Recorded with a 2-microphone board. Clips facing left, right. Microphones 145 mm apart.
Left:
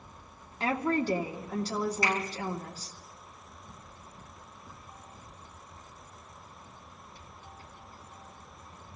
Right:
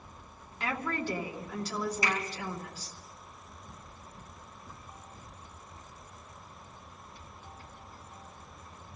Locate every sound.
0.6 s a woman speaking: 35° left (ahead or behind), 2 m
2.0 s a finger snap: 15° right (ahead or behind), 7 m